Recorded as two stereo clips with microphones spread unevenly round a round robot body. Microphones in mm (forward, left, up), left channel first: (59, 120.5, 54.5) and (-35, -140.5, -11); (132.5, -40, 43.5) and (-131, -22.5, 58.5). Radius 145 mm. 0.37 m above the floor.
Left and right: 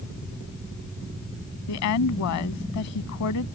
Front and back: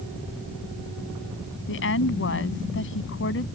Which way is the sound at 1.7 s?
40° left.